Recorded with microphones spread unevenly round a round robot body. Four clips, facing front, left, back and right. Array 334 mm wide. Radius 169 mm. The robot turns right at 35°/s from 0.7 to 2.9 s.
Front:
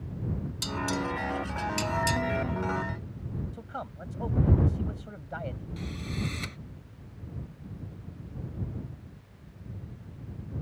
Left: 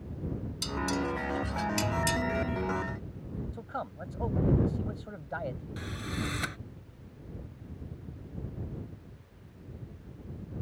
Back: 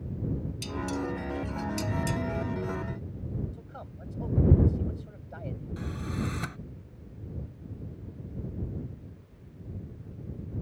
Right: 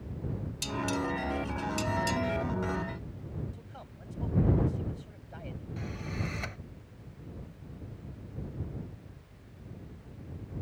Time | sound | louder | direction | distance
0.6 | dishes clattering | even, front 2 dB | 25° left | ?
3.5 | a man speaking | left 11 dB, front 6 dB | 45° left | ?
5.8 | a drill | right 2 dB, back 2 dB | 125° left | ?